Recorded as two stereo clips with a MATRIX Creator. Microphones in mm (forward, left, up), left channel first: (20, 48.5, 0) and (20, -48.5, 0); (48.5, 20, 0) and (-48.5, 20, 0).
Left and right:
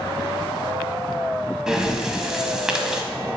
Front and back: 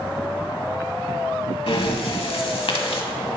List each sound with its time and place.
1.7 s breathing: 5° right, 0.8 m